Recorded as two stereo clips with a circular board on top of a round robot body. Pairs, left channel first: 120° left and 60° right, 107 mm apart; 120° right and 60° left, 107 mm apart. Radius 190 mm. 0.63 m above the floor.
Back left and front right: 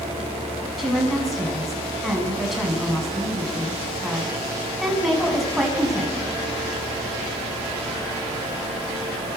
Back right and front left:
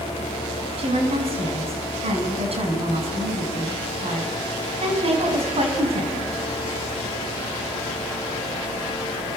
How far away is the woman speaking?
About 7 m.